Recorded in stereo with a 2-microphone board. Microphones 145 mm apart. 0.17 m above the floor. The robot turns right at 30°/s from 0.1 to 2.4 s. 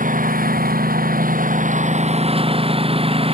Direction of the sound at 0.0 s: 110° right.